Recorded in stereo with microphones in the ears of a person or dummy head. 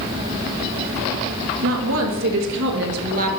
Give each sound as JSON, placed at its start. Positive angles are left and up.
{"t": 1.6, "sound": "a woman speaking", "side_deg": -75, "distance_m": 2.5}